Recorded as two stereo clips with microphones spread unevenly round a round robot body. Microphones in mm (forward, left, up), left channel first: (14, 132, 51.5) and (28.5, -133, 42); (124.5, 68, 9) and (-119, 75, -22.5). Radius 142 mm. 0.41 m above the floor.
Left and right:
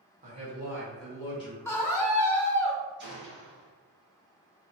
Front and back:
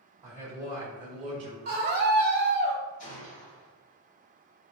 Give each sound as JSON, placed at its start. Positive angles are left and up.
{"t": 0.2, "sound": "a man speaking", "azimuth_deg": -135, "distance_m": 1.7}
{"t": 1.6, "sound": "a scream", "azimuth_deg": 170, "distance_m": 1.6}
{"t": 3.0, "sound": "a gunshot", "azimuth_deg": -40, "distance_m": 1.8}